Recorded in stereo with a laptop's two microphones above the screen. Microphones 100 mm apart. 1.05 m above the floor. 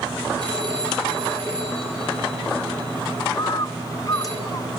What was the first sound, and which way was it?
A phone ringing, 45° right (ahead or behind).